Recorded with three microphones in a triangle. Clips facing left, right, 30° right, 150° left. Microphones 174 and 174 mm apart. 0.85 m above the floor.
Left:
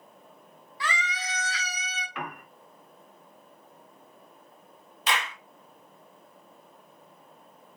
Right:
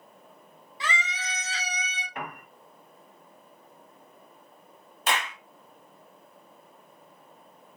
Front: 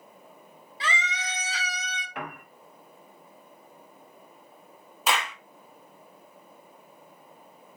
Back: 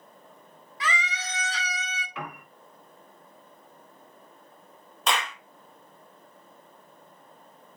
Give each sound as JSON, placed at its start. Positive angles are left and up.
{"t": 0.8, "sound": "a scream", "azimuth_deg": -40, "distance_m": 0.9}
{"t": 2.1, "sound": "a piano", "azimuth_deg": -55, "distance_m": 0.9}
{"t": 5.1, "sound": "a clap", "azimuth_deg": -115, "distance_m": 0.8}